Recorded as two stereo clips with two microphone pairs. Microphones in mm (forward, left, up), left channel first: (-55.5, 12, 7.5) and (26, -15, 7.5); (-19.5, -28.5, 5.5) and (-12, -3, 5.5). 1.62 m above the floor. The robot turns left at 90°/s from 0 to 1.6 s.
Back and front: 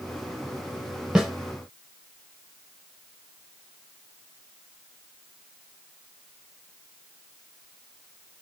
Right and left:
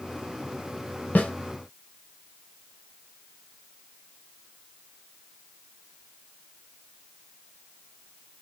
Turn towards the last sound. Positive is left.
turn(degrees=-140)